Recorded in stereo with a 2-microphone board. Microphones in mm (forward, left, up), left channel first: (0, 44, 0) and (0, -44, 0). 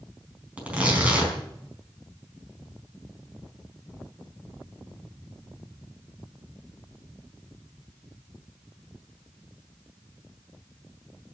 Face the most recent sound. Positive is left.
turn(degrees=-15)  # may be behind; listen again after turning